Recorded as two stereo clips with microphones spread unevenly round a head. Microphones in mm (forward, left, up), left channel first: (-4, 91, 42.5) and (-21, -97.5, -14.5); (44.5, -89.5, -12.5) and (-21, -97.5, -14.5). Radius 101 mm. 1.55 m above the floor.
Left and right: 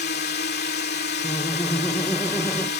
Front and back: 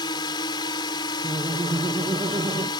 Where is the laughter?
165° left.